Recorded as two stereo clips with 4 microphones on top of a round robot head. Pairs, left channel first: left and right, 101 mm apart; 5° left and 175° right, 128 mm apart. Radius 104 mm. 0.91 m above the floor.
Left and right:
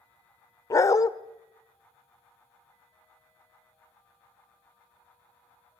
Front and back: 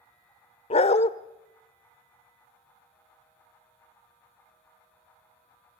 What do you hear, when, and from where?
0.7 s a dog barking: 35° left, 0.8 m